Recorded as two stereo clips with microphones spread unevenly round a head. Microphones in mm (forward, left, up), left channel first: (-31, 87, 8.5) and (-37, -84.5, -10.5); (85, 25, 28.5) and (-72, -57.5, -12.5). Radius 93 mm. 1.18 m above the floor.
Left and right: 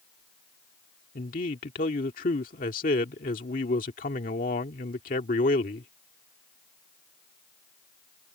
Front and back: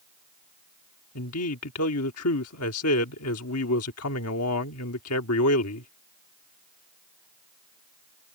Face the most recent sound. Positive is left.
turn(degrees=35)